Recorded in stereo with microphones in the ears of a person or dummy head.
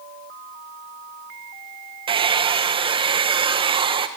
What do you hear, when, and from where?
2.1 s a hair dryer: 25° right (ahead or behind), 1.6 m